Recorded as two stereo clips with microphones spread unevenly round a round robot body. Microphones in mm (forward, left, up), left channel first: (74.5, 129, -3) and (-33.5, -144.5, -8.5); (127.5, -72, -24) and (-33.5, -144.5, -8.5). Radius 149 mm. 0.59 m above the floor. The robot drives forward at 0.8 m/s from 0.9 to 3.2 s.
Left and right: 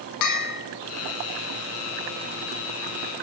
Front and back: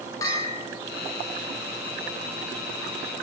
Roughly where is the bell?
Left.